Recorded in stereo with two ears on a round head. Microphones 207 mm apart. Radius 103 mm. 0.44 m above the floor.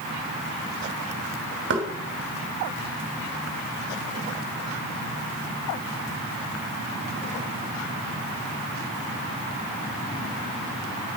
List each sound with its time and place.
1.7 s knocking: 50° right (ahead or behind), 3 m